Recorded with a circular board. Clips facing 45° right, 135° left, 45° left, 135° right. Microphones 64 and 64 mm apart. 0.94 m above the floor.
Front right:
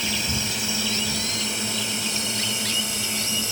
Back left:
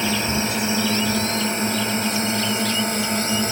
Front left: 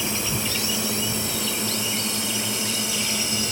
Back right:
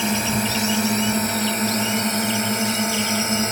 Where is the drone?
170° right; by 3.5 s 175° left.